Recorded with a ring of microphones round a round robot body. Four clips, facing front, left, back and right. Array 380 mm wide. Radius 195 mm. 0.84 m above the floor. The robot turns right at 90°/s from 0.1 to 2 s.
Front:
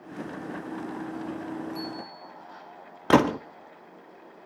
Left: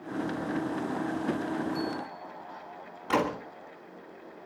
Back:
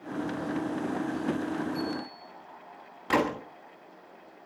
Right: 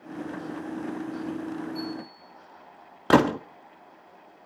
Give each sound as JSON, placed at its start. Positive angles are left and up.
{"t": 1.7, "sound": "a bicycle bell", "azimuth_deg": 60, "distance_m": 8.5}
{"t": 3.1, "sound": "a gunshot", "azimuth_deg": -50, "distance_m": 2.0}